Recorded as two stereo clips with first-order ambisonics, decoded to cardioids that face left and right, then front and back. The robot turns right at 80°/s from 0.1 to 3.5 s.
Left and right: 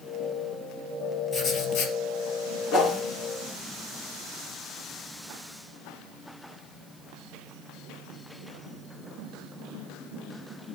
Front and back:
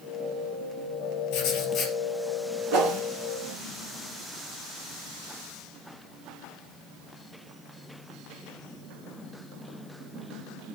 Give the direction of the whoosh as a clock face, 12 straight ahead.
7 o'clock.